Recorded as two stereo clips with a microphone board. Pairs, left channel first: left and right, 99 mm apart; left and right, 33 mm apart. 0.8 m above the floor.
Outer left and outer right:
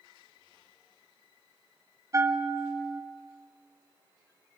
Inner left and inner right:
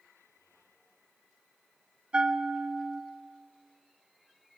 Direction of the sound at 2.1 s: 35° right (ahead or behind).